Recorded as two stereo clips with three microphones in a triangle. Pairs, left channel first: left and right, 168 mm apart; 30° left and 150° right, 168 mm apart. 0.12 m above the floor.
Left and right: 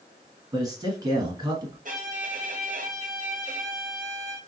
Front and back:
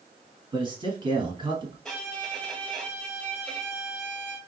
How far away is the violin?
About 0.9 m.